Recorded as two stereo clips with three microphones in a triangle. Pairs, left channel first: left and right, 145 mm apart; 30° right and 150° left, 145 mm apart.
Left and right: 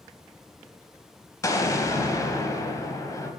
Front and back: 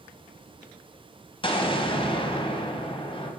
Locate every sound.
1.4 s an explosion: 20° left, 0.8 m